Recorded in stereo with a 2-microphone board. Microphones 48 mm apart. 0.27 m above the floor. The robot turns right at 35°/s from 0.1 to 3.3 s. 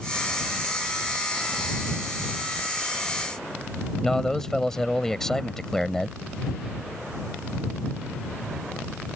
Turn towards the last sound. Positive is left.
turn(degrees=10)  # may be behind; listen again after turning